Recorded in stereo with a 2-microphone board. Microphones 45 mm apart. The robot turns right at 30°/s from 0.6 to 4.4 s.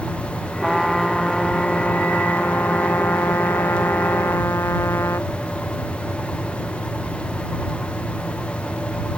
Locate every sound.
0.6 s a trumpet: 10° right; by 5.3 s 105° left